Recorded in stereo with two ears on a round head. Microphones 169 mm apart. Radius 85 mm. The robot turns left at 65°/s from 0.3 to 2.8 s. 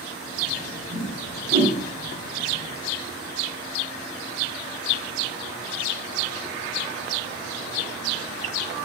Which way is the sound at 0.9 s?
75° right (ahead or behind).